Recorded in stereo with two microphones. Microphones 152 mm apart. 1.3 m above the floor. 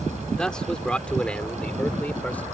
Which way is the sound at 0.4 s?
5° left (ahead or behind).